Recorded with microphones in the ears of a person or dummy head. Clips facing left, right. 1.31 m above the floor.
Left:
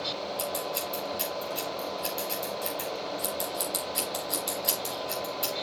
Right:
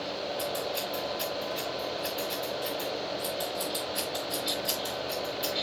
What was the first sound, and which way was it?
Scissors, 30° left (ahead or behind).